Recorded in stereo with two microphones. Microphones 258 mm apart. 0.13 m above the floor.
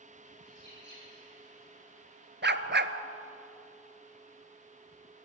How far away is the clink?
I don't hear a clink.